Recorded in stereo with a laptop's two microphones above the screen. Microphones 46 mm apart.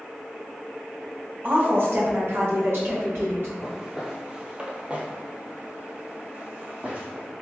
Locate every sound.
1.4 s a woman speaking: 45° right (ahead or behind), 1.0 m; by 3.5 s 60° right (ahead or behind), 1.9 m
3.6 s footsteps: 10° right (ahead or behind), 1.2 m; by 7.3 s 35° right (ahead or behind), 2.0 m